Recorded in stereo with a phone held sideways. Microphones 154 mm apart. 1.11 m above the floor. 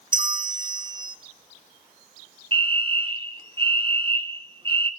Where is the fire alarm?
35° right (ahead or behind), 1.5 m.